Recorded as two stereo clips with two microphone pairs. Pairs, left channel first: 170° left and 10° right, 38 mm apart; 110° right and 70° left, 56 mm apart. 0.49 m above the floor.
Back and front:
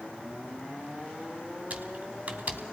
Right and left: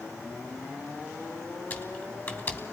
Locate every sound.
1.7 s typing on a keyboard: 60° right, 2.5 m